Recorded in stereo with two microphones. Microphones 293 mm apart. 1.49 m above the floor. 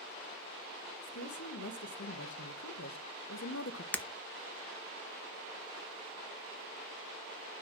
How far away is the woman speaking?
About 2.5 m.